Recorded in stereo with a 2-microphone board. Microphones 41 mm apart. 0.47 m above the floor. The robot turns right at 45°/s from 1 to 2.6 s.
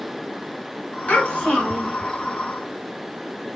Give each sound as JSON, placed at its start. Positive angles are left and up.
{"t": 1.1, "sound": "a child speaking", "azimuth_deg": 140, "distance_m": 1.4}